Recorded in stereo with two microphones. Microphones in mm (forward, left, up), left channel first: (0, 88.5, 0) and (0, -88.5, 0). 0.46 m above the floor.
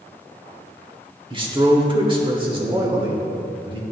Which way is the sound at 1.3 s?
30° right (ahead or behind).